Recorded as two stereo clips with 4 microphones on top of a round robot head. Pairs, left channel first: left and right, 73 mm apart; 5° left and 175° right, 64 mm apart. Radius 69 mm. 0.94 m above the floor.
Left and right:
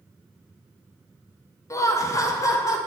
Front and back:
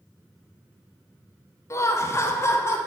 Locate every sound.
1.7 s laughter: 45° left, 1.6 m; by 2.8 s 50° left, 2.5 m